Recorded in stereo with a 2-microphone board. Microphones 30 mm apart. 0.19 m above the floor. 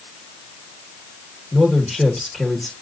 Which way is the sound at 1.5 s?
5° right (ahead or behind).